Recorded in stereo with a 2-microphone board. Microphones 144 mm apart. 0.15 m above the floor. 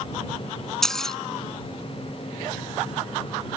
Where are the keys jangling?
5° left (ahead or behind).